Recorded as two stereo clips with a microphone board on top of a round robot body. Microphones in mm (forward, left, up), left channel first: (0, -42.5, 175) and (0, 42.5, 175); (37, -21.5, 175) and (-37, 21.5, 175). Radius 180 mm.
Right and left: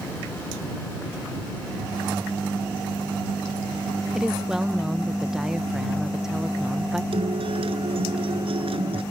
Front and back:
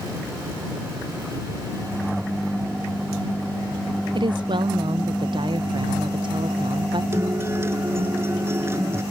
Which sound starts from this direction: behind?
A woman speaking, at 4.2 s.